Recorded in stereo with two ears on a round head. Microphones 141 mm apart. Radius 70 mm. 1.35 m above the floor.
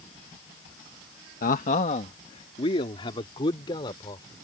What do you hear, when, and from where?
1.4 s a man speaking: 55° left (ahead or behind); by 4.3 s 30° left (ahead or behind)